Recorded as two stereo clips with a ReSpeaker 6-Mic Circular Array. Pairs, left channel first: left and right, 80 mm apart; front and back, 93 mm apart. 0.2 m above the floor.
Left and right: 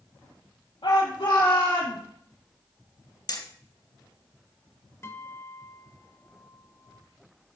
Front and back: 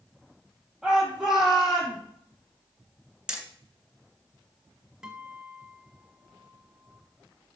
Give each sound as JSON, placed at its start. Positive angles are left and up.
{"t": 0.8, "sound": "a shout", "azimuth_deg": 95, "distance_m": 5.5}
{"t": 3.3, "sound": "hammering", "azimuth_deg": 100, "distance_m": 1.9}
{"t": 5.0, "sound": "a guitar", "azimuth_deg": 105, "distance_m": 1.4}